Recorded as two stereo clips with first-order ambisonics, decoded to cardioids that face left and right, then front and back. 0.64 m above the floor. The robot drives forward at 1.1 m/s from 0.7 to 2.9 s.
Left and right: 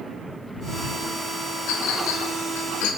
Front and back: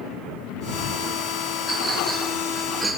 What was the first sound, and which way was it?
A clink, 75° left.